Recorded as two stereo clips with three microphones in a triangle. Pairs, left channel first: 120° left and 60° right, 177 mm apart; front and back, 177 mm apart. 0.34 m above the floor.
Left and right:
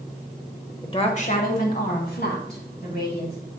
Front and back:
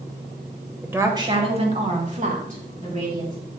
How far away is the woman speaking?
About 1.1 m.